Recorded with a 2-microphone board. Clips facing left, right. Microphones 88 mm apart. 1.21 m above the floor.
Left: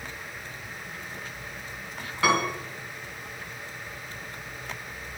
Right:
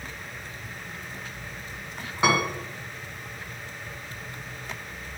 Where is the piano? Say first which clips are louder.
Right 1 dB; 20° right (ahead or behind), 1.4 m.